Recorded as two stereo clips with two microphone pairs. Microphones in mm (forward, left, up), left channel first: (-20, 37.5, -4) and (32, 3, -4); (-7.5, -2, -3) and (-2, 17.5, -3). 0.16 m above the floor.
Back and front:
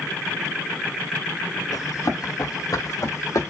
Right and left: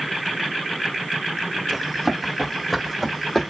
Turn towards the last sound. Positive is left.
turn(degrees=-175)